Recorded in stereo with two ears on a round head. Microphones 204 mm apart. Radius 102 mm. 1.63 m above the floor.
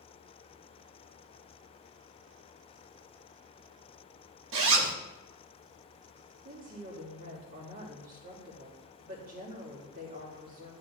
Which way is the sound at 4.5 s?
60° right (ahead or behind).